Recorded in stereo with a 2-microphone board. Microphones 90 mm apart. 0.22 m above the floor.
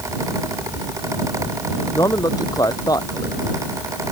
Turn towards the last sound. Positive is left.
turn(degrees=45)  # may be behind; listen again after turning